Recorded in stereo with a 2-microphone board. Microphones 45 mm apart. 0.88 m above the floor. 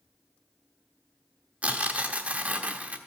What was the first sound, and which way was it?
Tearing paper, 30° right (ahead or behind).